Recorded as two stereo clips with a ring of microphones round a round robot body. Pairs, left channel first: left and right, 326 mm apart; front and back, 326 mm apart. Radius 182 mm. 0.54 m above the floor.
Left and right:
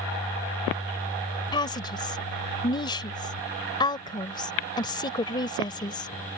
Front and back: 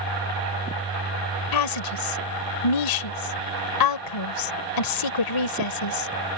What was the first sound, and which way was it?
A woman speaking, 10° left.